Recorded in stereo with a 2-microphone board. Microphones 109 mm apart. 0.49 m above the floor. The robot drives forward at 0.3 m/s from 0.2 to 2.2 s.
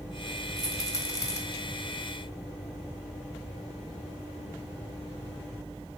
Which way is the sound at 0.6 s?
30° left (ahead or behind).